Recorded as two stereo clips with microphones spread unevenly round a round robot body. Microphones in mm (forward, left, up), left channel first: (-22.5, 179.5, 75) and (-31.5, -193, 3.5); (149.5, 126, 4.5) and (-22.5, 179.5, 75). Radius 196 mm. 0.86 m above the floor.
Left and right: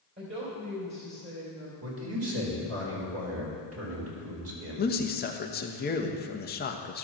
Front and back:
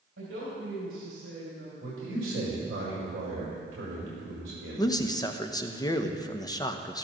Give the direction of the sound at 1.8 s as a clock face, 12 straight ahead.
5 o'clock.